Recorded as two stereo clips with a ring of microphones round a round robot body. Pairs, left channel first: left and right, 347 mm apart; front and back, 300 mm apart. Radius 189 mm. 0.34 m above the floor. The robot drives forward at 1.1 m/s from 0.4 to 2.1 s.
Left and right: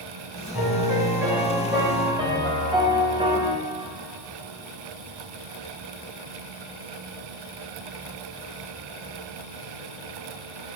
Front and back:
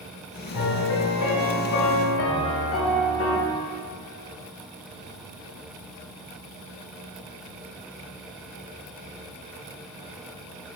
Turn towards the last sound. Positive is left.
turn(degrees=-20)